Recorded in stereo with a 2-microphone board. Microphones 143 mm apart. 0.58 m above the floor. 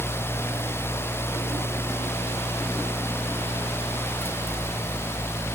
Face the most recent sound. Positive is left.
No sound to turn to.